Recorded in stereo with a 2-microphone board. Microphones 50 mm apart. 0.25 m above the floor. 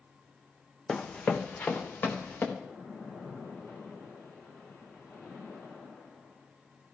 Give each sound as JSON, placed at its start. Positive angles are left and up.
{"t": 0.9, "sound": "running footsteps", "side_deg": 20, "distance_m": 0.9}
{"t": 2.6, "sound": "a splash", "side_deg": 65, "distance_m": 5.5}